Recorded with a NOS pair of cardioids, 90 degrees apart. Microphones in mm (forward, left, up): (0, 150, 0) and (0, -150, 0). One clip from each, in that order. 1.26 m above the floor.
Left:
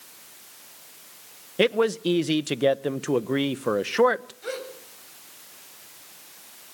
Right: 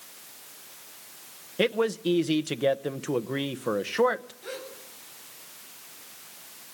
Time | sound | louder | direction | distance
1.6 | a man speaking | left 4 dB | 20° left | 0.9 m
4.4 | a gasp | left 5 dB | 50° left | 7.5 m